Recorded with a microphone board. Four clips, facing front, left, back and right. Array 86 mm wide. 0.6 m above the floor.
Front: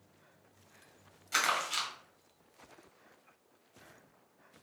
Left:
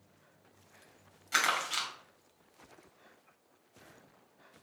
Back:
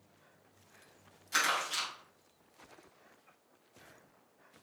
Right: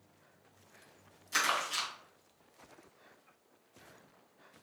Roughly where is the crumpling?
Left.